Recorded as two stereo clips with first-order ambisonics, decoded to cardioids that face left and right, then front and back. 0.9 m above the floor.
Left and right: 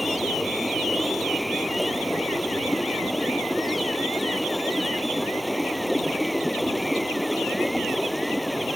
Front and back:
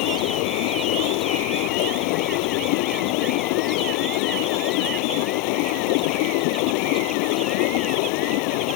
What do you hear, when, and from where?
0.0 s running water: straight ahead